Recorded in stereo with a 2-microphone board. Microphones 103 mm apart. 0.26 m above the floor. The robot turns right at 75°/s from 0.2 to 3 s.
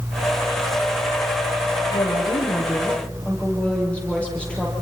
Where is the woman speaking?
90° left, 8.5 m; by 4.7 s 170° left, 8.5 m.